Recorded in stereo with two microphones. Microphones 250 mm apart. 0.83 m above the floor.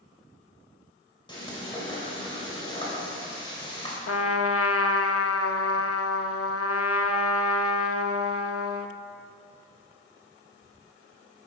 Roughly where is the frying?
Centre.